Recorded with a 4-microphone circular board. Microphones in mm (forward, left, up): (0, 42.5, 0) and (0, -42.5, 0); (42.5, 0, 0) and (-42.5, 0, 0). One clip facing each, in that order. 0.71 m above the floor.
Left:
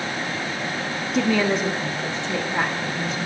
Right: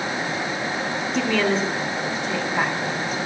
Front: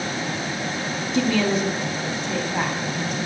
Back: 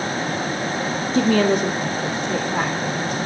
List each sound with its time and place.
1.1 s a woman speaking: straight behind, 0.5 m; by 3.3 s 150° left, 2 m